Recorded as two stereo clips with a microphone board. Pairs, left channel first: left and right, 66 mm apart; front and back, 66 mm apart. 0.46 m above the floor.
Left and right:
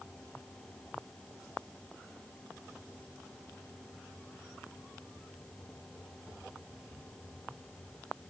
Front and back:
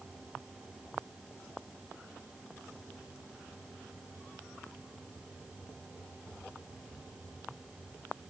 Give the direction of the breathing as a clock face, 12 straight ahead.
I don't hear breathing.